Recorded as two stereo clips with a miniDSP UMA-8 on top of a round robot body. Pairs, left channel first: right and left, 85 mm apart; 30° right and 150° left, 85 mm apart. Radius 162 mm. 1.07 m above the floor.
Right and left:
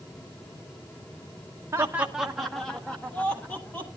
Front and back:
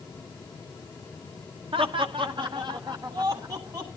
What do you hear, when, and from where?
1.7 s laughter: 150° left, 0.7 m; by 3.9 s 160° right, 2 m